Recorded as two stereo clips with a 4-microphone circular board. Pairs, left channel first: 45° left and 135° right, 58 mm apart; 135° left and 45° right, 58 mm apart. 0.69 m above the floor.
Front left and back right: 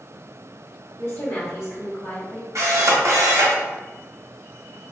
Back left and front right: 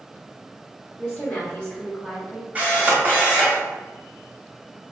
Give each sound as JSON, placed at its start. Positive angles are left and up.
{"t": 1.0, "sound": "a woman speaking", "azimuth_deg": 75, "distance_m": 1.5}
{"t": 2.5, "sound": "a camera shutter", "azimuth_deg": -110, "distance_m": 1.0}